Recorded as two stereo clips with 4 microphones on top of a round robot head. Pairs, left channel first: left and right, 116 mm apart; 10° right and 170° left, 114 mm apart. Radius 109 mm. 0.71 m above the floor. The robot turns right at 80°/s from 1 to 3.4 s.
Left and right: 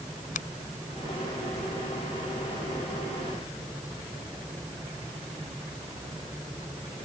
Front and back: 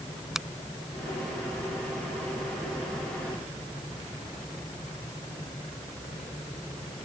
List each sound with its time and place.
0.3 s a finger snap: 85° left